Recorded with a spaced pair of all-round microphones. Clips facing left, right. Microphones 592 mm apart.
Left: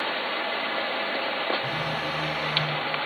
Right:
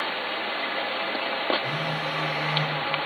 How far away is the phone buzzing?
About 5 m.